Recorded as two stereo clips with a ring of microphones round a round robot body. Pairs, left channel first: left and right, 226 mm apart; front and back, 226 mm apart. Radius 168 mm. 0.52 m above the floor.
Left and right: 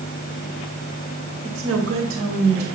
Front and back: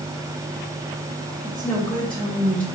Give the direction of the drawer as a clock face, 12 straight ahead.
No drawer in this recording.